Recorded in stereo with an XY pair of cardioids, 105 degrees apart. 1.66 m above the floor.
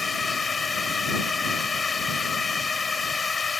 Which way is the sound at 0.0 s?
30° left.